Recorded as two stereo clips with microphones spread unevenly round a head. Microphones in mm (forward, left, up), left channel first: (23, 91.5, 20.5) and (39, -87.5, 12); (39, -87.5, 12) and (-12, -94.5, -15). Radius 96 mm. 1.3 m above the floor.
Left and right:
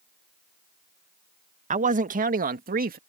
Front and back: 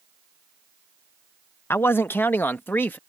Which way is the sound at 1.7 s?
35° right.